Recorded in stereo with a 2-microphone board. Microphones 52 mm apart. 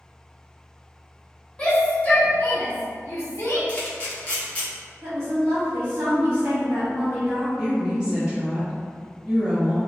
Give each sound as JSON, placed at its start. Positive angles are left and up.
{"t": 1.6, "sound": "a shout", "side_deg": 20, "distance_m": 1.2}
{"t": 3.7, "sound": "a camera shutter", "side_deg": 25, "distance_m": 0.8}
{"t": 5.0, "sound": "a woman speaking", "side_deg": -50, "distance_m": 1.5}
{"t": 7.6, "sound": "a woman speaking", "side_deg": -20, "distance_m": 1.4}